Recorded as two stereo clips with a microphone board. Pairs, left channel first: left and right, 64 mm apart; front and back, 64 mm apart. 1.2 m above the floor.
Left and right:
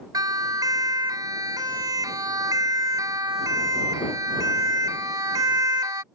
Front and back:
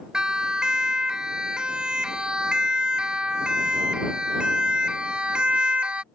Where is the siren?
100° right; by 6.0 s 105° right.